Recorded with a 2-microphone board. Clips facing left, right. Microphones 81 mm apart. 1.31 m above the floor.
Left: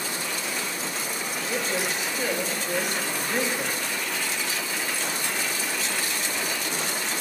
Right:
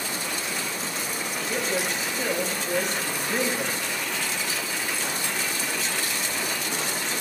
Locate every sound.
1.5 s a woman speaking: 5° left (ahead or behind), 2.5 m